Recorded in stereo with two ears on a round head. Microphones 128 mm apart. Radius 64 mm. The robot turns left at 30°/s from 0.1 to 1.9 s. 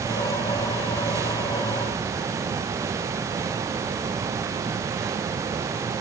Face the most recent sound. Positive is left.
No sound to turn to.